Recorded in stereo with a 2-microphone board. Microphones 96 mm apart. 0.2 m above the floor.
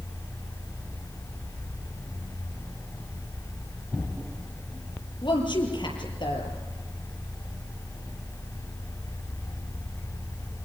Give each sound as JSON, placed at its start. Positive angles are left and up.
{"t": 5.2, "sound": "a woman speaking", "side_deg": 55, "distance_m": 6.0}